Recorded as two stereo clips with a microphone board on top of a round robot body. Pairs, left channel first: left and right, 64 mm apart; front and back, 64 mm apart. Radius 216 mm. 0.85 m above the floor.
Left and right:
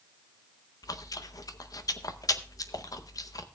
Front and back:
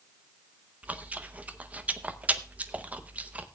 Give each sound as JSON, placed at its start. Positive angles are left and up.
{"t": 0.8, "sound": "chewing", "azimuth_deg": 115, "distance_m": 0.9}